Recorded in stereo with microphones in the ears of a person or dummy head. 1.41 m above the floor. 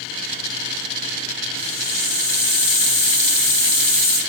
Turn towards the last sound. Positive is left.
turn(degrees=20)  # may be behind; listen again after turning